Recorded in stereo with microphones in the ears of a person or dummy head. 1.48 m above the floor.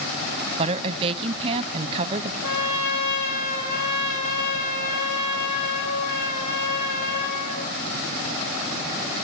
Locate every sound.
0.6 s a woman speaking: 30° right (ahead or behind), 0.7 m
2.4 s a trumpet: 60° left (ahead or behind), 7.5 m